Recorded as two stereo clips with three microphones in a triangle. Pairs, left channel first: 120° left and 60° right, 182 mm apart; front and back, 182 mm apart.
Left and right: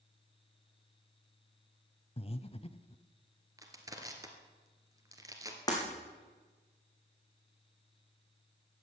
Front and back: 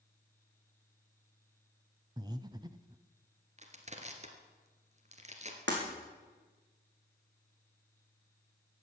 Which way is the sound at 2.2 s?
135° left.